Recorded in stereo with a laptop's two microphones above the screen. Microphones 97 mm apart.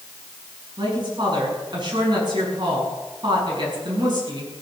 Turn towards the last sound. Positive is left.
turn(degrees=-50)  # may be behind; listen again after turning